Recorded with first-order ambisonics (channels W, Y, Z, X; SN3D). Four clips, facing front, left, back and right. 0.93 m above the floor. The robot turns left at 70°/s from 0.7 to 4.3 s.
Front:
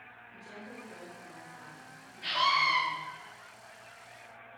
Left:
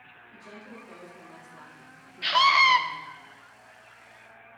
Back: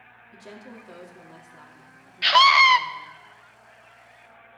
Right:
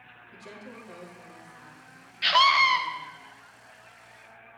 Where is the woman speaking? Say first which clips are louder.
Right 1 dB, back 4 dB; 160° right, 2 m; by 3.1 s 30° left, 2 m.